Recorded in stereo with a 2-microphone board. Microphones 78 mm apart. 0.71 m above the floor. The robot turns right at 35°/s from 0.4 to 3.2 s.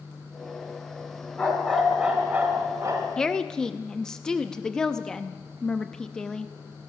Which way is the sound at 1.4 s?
165° left.